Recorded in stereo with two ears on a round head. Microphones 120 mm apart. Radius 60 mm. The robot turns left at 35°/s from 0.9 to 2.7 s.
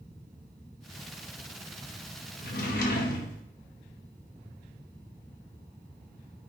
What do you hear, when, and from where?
2.4 s a drawer: 75° left (ahead or behind), 0.5 m; by 3.4 s 70° left (ahead or behind), 0.5 m